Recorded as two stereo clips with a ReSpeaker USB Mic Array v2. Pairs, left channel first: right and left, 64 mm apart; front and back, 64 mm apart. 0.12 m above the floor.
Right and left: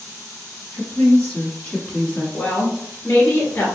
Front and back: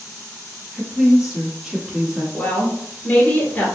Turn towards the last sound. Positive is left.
turn(degrees=-45)